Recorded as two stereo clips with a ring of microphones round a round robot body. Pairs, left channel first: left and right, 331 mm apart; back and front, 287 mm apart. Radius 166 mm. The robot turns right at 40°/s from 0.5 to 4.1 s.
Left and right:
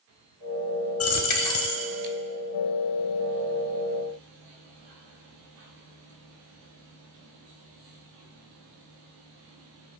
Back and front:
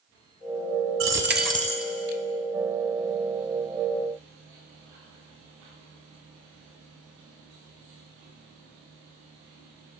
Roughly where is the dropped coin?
Ahead left.